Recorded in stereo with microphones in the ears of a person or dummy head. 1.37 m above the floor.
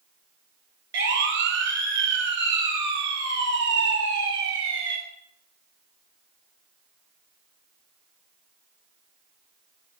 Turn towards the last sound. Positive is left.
turn(degrees=-70)  # may be behind; listen again after turning